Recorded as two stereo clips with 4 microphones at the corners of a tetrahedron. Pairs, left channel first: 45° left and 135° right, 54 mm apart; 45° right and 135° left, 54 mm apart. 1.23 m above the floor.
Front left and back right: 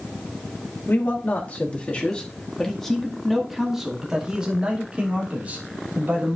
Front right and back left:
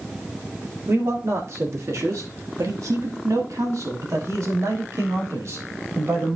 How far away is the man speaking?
About 2 m.